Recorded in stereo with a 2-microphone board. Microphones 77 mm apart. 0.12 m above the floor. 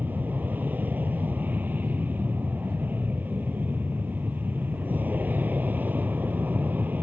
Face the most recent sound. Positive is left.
turn(degrees=-25)  # may be behind; listen again after turning